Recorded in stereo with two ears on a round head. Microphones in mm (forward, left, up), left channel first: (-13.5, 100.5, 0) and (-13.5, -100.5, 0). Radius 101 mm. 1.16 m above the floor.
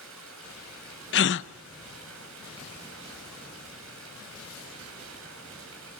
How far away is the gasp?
About 0.8 m.